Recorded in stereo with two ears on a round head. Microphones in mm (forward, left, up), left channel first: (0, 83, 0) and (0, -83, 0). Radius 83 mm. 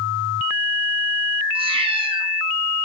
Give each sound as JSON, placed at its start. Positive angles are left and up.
{"t": 1.6, "sound": "a cat meowing", "side_deg": -30, "distance_m": 1.1}